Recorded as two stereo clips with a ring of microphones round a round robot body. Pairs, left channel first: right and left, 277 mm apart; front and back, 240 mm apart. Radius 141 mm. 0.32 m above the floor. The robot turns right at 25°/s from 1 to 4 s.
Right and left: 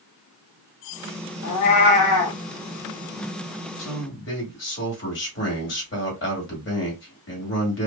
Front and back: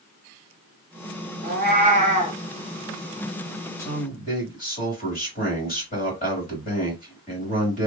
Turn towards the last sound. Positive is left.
turn(degrees=-50)